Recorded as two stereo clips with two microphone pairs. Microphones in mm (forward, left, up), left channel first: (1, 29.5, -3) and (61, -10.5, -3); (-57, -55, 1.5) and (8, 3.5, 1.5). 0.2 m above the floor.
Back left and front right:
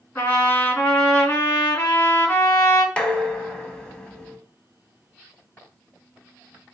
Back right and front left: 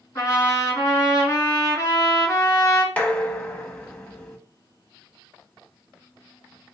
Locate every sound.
0.1 s a trumpet: 170° right, 2 m
3.0 s dishes clattering: 165° right, 0.7 m